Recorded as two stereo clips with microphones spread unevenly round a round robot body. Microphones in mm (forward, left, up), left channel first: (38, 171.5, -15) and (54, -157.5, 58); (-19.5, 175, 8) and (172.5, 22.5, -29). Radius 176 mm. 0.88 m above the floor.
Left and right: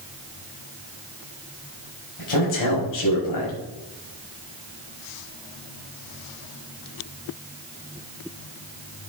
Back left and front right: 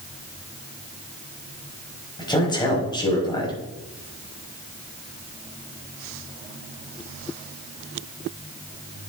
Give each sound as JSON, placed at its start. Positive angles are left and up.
{"t": 2.2, "sound": "a man speaking", "azimuth_deg": 70, "distance_m": 4.5}